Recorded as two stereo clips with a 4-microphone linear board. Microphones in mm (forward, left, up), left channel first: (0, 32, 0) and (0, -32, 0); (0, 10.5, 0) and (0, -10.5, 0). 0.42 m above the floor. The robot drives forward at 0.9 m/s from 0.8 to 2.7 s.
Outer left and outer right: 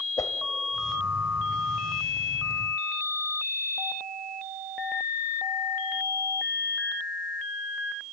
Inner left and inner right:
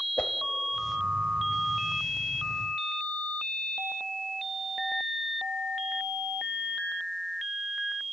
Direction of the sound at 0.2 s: 65° left (ahead or behind).